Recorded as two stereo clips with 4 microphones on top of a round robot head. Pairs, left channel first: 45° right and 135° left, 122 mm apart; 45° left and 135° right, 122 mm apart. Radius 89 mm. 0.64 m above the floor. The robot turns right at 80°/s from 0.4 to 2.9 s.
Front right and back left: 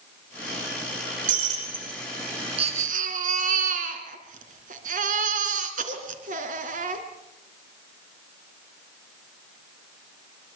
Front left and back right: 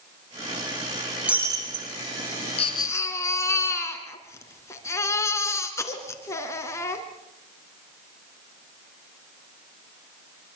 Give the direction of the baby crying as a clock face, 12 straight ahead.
9 o'clock.